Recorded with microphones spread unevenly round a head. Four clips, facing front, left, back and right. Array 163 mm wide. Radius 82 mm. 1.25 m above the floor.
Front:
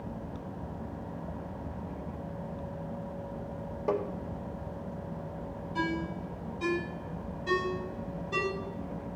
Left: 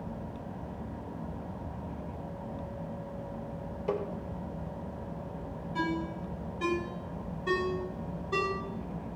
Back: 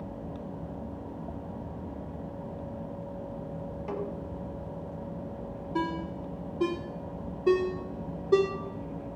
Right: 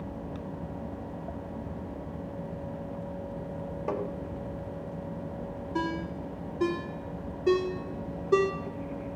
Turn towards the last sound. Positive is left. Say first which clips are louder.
# even, back 1 dB
turn(degrees=-150)